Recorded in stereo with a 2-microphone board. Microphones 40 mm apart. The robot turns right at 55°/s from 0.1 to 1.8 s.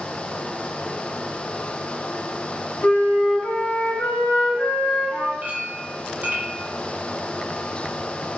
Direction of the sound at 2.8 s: 55° left (ahead or behind).